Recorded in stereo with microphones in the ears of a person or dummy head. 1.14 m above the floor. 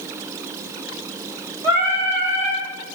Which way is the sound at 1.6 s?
15° right (ahead or behind).